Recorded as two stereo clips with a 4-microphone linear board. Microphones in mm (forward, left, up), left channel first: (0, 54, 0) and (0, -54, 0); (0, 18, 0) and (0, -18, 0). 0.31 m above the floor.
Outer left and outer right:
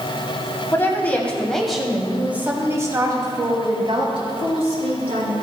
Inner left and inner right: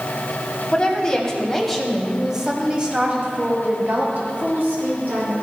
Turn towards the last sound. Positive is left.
turn(degrees=-65)  # may be behind; listen again after turning